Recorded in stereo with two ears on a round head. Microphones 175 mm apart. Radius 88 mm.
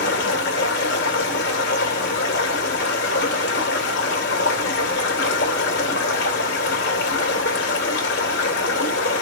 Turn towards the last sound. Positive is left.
turn(degrees=60)  # may be behind; listen again after turning